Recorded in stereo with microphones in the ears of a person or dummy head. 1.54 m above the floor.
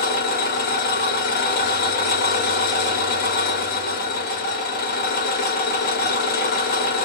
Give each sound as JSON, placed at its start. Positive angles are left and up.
{"t": 0.0, "sound": "an engine running", "side_deg": 50, "distance_m": 1.9}